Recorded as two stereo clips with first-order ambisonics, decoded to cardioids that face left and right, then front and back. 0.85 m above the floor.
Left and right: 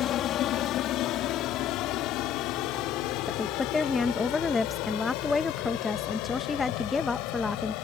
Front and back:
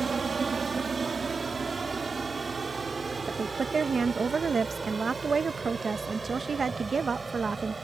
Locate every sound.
0.0 s an aircraft: 115° left; by 7.8 s 100° left
3.3 s a woman speaking: 145° left